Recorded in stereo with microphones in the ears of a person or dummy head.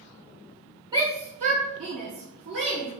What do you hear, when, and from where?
0.9 s a shout: 20° right (ahead or behind), 0.6 m; by 2.9 s 65° right (ahead or behind), 2.0 m